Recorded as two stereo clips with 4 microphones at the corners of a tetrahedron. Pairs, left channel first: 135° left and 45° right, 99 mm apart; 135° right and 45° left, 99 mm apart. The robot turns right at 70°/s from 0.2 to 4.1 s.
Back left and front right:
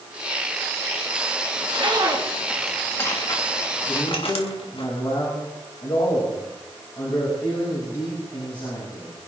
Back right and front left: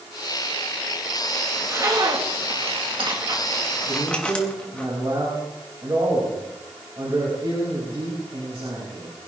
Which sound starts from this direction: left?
A man speaking, at 3.9 s.